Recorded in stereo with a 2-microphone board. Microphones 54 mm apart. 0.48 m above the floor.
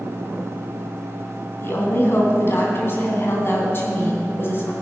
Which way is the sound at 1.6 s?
40° left (ahead or behind).